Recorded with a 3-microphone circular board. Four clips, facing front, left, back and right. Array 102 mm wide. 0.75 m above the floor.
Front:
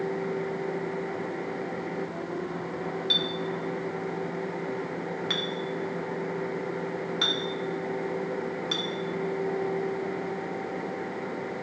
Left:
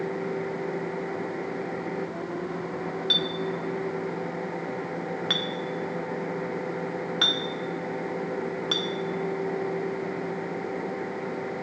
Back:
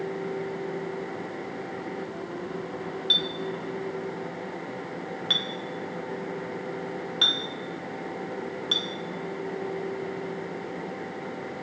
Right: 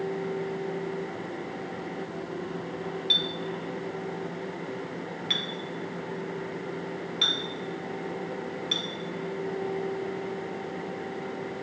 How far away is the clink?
About 0.7 m.